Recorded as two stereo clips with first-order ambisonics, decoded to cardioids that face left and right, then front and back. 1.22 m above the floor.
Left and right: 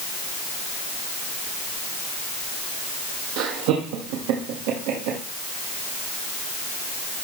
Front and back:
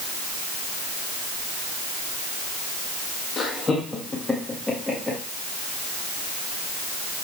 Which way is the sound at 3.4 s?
70° right.